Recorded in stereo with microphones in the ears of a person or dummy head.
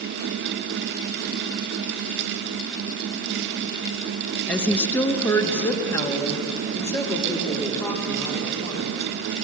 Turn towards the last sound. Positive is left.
turn(degrees=15)  # may be behind; listen again after turning